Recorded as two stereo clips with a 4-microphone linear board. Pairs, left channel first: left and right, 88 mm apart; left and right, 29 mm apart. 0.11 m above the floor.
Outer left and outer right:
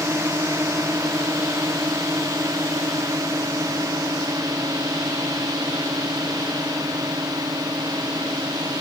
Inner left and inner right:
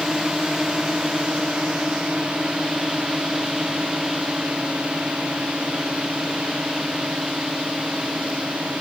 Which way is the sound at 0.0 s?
35° right (ahead or behind).